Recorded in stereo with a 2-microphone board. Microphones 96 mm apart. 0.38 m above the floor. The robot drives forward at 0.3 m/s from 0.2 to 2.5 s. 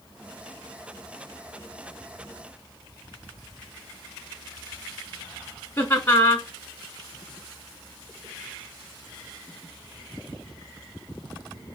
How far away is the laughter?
About 1.2 m.